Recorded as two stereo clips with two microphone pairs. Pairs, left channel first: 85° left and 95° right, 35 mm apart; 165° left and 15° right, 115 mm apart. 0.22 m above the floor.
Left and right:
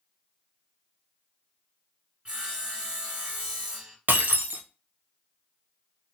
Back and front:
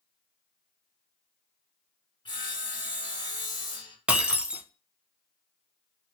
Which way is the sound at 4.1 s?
90° right.